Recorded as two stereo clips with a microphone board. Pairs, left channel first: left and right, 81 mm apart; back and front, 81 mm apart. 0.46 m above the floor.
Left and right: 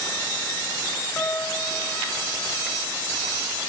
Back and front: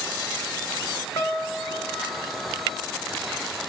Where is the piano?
145° left, 1.4 m.